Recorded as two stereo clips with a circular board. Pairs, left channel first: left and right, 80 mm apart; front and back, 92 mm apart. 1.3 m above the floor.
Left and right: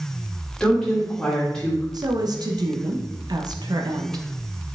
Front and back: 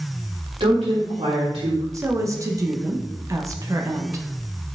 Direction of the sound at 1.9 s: 125° right.